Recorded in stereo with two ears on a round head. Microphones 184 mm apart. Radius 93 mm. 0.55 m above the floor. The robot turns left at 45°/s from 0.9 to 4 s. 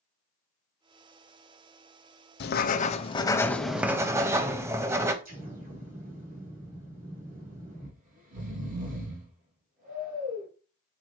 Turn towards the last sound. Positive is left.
turn(degrees=-45)  # may be behind; listen again after turning